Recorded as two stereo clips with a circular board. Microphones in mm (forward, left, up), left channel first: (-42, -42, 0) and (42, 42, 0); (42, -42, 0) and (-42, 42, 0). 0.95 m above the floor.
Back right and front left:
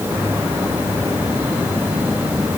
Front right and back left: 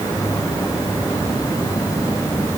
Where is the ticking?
No ticking in this recording.